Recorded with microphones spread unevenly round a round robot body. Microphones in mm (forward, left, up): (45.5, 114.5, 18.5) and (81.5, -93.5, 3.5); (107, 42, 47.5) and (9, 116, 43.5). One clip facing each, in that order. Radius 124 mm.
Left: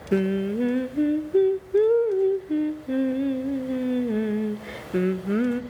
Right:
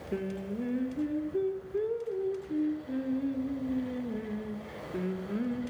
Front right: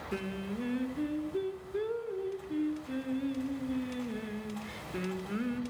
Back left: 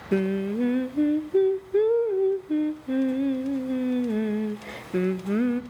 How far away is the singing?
About 1.2 m.